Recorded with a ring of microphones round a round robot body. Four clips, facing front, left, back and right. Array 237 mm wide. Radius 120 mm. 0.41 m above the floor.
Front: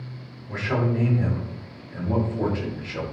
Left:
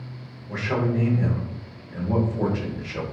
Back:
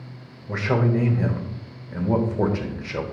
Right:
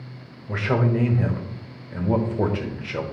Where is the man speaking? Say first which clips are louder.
Right 2 dB, back 3 dB; 135° right, 1.2 m.